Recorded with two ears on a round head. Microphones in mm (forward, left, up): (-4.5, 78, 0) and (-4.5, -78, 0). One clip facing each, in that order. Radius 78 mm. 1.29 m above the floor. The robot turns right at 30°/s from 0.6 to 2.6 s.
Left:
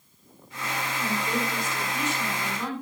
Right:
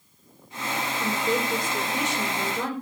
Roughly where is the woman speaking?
Right.